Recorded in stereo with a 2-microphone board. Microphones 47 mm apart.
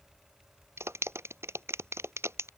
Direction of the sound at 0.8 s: 75° right (ahead or behind).